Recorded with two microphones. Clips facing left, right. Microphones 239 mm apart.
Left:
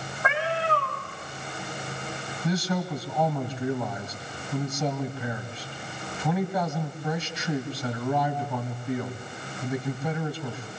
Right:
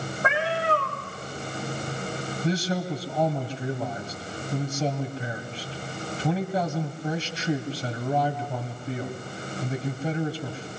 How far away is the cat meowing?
About 7.5 m.